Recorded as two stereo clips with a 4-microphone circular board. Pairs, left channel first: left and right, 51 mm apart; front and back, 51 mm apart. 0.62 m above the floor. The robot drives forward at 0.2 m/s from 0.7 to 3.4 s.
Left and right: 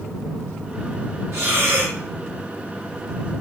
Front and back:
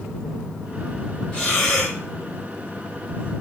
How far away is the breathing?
About 3 m.